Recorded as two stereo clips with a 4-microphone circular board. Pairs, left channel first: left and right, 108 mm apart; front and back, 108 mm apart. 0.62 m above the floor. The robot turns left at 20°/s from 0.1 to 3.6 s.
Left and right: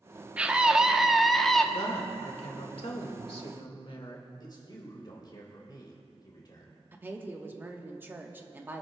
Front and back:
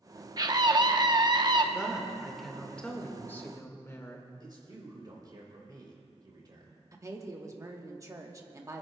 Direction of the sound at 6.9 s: 145° right.